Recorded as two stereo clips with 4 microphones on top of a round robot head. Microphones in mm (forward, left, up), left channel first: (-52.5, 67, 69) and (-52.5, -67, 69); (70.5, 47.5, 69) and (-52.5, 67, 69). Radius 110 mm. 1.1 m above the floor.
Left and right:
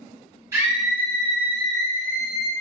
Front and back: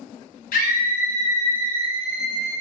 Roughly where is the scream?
Ahead.